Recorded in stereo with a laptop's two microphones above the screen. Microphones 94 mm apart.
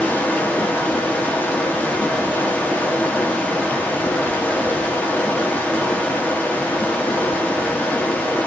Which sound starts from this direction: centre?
Running water, at 0.0 s.